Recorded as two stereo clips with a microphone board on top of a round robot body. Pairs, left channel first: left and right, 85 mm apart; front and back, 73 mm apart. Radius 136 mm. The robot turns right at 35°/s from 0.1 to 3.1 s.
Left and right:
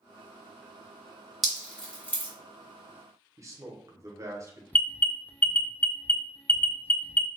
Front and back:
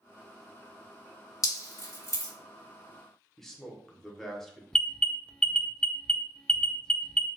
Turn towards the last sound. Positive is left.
turn(degrees=60)